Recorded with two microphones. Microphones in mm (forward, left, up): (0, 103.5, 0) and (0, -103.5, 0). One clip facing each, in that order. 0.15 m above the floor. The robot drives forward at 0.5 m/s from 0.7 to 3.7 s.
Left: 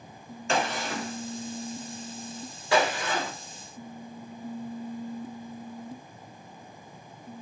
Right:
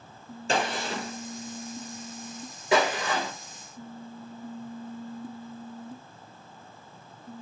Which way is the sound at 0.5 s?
35° right (ahead or behind).